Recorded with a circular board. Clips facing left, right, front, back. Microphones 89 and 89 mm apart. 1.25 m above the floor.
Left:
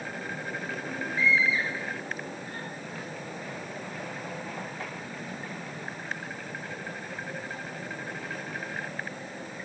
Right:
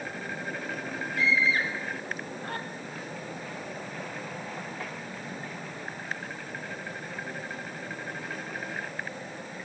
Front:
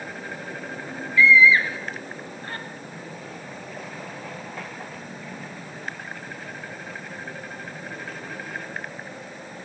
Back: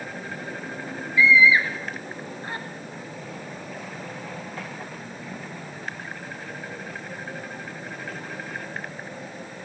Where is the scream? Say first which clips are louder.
Even, front 1 dB; 105° right, 4 m.